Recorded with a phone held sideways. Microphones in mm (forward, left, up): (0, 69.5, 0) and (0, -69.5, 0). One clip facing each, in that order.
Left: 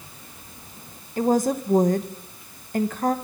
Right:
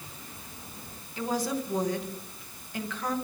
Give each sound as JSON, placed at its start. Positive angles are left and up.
{"t": 1.2, "sound": "a woman speaking", "side_deg": 45, "distance_m": 1.2}